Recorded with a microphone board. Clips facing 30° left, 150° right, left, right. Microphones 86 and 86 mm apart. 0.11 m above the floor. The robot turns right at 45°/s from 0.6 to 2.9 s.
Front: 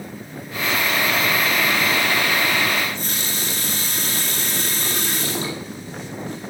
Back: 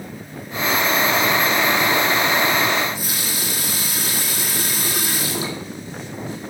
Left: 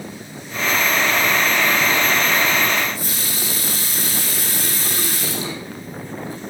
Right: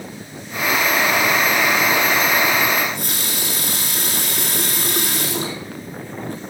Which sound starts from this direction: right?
A running tap, at 2.8 s.